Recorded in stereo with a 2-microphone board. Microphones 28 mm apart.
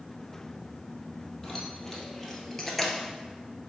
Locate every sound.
1.4 s keys jangling: 10° left (ahead or behind), 2 m; by 3.1 s 5° left (ahead or behind), 1.1 m